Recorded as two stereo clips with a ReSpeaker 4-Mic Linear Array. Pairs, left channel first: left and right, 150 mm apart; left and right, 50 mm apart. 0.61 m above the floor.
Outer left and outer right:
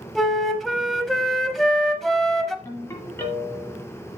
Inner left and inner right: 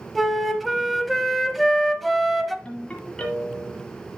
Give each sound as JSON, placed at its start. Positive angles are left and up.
{"t": 0.1, "sound": "a flute", "side_deg": 0, "distance_m": 0.8}
{"t": 2.6, "sound": "a ringtone", "side_deg": 20, "distance_m": 2.0}